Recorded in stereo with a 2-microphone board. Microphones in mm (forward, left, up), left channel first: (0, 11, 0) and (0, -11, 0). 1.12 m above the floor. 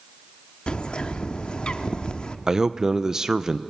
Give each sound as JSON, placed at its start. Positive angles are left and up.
{"t": 0.7, "sound": "a bird", "side_deg": 45, "distance_m": 0.8}
{"t": 2.5, "sound": "a man speaking", "side_deg": -25, "distance_m": 0.6}